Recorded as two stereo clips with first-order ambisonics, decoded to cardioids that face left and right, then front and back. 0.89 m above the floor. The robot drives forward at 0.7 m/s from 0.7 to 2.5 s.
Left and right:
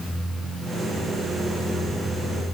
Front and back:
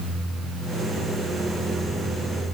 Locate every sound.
Only background noise.